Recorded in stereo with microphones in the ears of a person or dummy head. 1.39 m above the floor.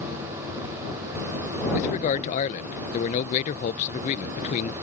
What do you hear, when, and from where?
1.7 s a man speaking: 35° left (ahead or behind)